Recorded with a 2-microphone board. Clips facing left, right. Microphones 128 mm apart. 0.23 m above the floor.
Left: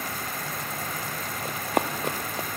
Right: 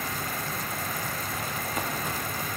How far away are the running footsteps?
About 0.8 m.